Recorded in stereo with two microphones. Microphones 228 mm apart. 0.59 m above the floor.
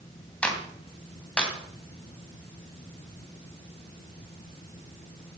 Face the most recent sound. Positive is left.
turn(degrees=5)  # may be behind; listen again after turning